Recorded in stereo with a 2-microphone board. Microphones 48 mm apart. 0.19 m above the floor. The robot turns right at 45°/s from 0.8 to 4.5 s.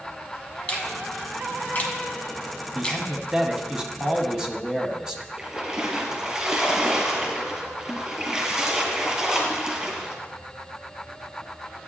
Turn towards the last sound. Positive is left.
turn(degrees=-20)  # may be behind; listen again after turning